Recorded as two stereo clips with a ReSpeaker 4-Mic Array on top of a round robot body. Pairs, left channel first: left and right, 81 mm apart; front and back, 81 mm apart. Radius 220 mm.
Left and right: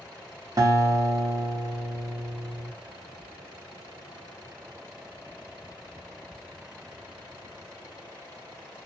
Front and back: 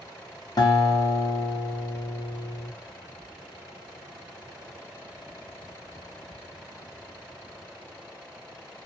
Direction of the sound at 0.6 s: 40° right.